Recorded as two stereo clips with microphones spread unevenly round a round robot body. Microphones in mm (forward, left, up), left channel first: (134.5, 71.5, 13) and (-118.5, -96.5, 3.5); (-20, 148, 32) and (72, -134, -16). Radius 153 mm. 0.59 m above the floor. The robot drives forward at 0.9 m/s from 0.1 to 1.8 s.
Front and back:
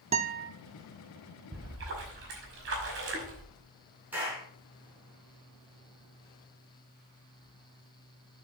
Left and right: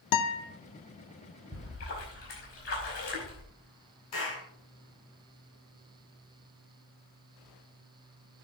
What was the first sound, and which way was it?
A guitar, 145° left.